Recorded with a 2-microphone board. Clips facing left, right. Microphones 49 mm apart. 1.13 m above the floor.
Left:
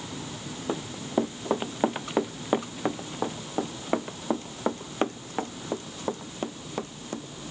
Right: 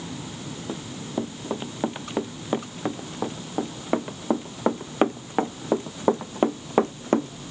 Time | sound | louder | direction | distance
0.7 | running footsteps | left 4 dB | 20° left (ahead or behind) | ?